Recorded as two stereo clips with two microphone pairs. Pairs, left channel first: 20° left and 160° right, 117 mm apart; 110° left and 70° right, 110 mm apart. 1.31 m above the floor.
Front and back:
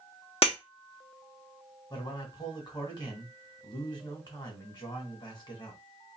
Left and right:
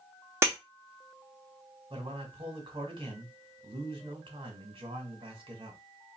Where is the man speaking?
30° right, 2 m.